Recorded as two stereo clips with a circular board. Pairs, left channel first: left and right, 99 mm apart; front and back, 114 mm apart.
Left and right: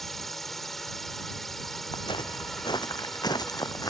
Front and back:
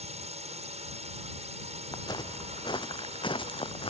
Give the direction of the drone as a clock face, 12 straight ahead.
6 o'clock.